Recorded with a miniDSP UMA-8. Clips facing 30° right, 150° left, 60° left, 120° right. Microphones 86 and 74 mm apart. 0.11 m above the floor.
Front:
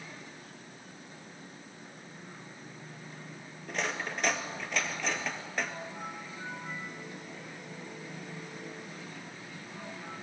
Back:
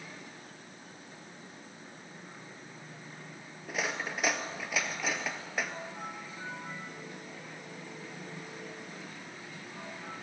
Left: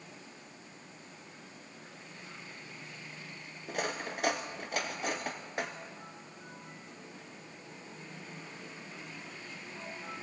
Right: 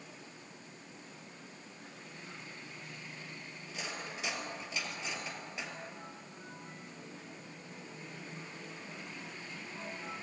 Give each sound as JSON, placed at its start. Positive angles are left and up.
{"t": 3.7, "sound": "cutlery clinking", "azimuth_deg": 70, "distance_m": 1.5}